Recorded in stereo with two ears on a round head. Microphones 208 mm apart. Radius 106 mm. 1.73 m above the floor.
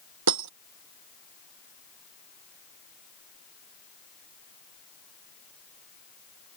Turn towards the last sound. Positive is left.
turn(degrees=-80)